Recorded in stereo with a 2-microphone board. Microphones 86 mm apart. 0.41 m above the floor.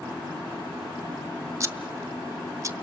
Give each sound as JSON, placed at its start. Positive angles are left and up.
{"t": 1.6, "sound": "scissors", "side_deg": -40, "distance_m": 0.9}